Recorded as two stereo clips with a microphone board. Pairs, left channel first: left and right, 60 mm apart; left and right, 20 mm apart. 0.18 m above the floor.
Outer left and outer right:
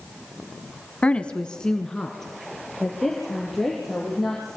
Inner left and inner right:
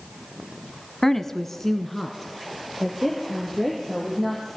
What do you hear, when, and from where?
1.0 s a woman speaking: 20° left (ahead or behind), 1.1 m; by 4.5 s centre (ahead or behind), 5.5 m